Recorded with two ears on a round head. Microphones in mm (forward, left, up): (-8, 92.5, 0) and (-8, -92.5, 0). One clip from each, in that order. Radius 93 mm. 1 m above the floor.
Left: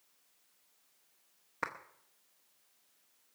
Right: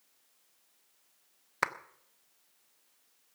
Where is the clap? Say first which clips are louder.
Right 7 dB; 75° right (ahead or behind), 0.9 m.